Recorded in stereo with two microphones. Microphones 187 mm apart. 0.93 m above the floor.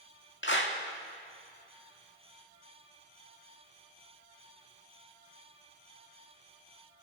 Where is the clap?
70° left (ahead or behind), 1.7 m.